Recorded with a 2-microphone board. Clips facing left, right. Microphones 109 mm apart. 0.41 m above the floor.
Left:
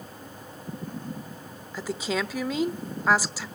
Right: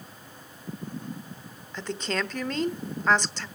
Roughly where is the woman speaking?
Centre.